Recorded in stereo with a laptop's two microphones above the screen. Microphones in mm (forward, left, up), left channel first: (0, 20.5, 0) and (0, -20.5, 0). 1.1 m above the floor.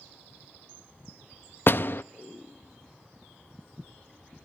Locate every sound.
1.7 s a door slam: 50° left (ahead or behind), 0.6 m